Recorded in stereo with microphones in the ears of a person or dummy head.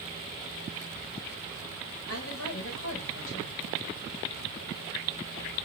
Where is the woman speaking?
80° left, 2 m.